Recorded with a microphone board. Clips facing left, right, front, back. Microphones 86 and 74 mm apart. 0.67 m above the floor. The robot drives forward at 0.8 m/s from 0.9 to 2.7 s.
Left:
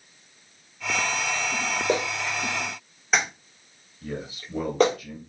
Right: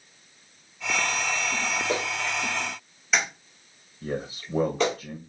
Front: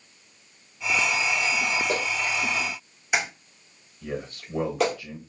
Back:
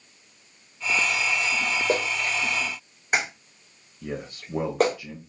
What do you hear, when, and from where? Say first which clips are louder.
1.9 s a clap: left 2 dB, back 2 dB; 120° left, 1.8 m; by 5.0 s 135° left, 2 m
4.0 s a man speaking: right 3 dB, front 1 dB; 115° right, 0.8 m